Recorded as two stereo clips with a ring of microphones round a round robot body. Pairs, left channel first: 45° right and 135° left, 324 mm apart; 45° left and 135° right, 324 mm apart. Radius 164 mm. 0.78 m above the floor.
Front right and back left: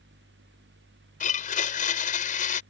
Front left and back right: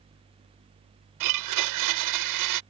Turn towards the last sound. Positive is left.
turn(degrees=-110)